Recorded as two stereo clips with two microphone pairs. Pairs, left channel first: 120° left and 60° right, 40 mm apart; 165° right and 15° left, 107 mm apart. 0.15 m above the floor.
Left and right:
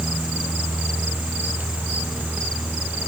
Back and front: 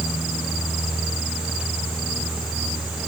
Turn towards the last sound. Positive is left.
No sound to turn to.